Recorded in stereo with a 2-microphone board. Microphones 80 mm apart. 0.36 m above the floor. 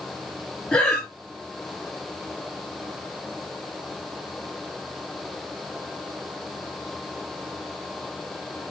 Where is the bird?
No bird in this recording.